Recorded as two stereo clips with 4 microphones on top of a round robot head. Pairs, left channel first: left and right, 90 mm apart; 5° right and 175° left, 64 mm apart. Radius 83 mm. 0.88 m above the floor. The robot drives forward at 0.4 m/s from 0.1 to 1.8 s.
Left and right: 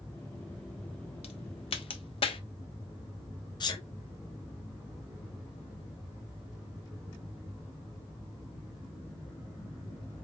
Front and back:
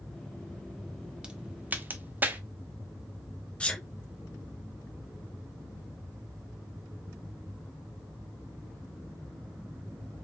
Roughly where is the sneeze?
Ahead left.